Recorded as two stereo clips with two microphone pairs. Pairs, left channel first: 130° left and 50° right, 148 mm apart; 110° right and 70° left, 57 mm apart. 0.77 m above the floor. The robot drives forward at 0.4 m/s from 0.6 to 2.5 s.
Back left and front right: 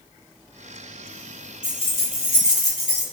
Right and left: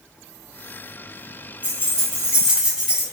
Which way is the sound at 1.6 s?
130° left.